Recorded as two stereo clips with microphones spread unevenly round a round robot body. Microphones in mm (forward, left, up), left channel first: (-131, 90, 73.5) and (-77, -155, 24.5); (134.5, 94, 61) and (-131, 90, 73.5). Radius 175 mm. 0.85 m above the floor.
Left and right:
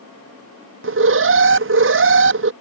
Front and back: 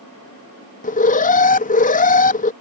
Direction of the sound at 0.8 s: 60° right.